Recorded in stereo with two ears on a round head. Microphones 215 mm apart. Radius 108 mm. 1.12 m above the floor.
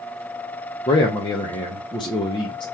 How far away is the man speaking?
About 0.8 m.